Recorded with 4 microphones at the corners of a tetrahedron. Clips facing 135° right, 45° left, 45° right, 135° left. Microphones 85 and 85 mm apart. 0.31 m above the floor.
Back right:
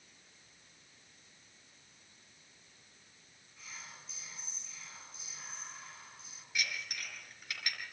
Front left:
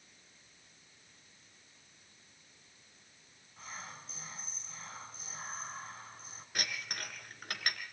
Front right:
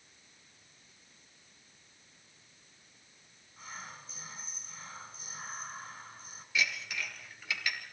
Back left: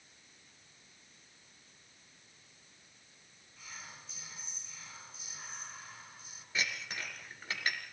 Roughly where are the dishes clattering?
Left.